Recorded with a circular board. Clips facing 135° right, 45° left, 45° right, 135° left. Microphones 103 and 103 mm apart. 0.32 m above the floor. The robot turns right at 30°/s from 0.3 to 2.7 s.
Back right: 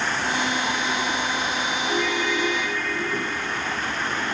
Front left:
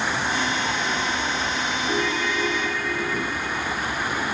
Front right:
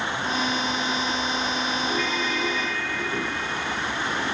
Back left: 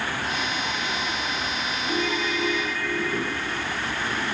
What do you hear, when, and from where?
1.9 s a ringtone: 80° left, 2.5 m; by 3.6 s 105° left, 2.5 m